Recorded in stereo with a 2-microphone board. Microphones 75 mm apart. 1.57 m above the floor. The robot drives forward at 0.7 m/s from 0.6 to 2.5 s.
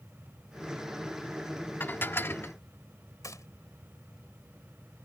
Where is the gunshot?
50° left (ahead or behind).